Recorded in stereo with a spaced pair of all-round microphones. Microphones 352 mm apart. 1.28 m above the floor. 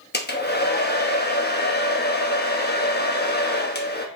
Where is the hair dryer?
30° left (ahead or behind), 0.9 m.